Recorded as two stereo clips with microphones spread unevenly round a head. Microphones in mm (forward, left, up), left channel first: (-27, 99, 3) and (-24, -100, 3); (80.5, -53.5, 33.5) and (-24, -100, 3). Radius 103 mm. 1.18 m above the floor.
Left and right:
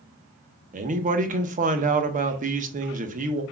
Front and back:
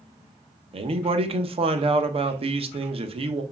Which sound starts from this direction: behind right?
A man speaking, at 0.7 s.